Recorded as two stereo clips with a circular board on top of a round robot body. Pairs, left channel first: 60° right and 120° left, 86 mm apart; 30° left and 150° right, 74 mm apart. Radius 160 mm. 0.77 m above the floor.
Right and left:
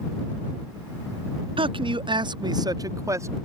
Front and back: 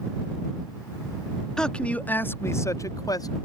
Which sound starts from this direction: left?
A man speaking, at 1.6 s.